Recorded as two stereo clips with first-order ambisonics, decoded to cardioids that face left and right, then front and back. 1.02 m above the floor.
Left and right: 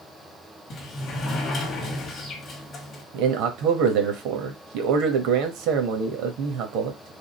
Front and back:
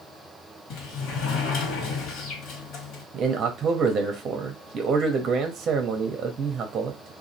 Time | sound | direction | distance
0.7 | a sliding door | 30° left | 1.4 m
3.1 | a man speaking | 120° right | 1.2 m